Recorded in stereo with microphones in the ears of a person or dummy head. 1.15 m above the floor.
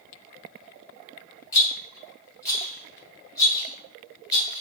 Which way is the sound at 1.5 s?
20° left (ahead or behind).